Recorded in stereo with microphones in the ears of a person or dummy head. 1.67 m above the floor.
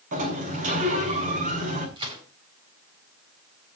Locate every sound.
0.1 s a sliding door: 40° right (ahead or behind), 6.5 m
2.0 s a gunshot: 30° right (ahead or behind), 8.5 m